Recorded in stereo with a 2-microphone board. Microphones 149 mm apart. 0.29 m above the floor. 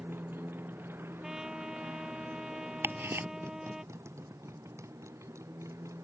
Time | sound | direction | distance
0.0 | a motorcycle | 15° right (ahead or behind) | ?
1.2 | a trumpet | 5° right (ahead or behind) | ?
2.8 | ticking | 15° right (ahead or behind) | ?